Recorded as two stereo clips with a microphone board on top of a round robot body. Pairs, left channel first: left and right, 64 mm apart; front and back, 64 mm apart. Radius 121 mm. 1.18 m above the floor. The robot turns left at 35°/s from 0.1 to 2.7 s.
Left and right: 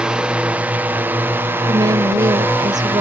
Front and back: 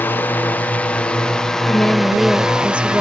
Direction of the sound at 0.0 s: 25° right.